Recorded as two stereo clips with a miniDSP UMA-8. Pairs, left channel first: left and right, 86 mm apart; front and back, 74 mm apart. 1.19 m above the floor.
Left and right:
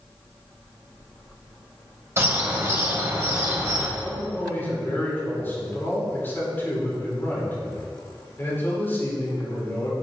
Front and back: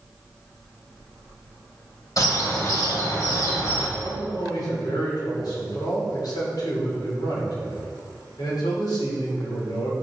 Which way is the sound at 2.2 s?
35° right.